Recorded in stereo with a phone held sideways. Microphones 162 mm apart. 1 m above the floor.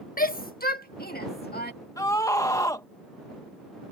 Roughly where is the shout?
Left.